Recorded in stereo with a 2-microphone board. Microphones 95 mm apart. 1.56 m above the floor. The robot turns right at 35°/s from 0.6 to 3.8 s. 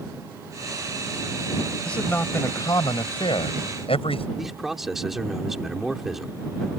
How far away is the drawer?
No drawer in this recording.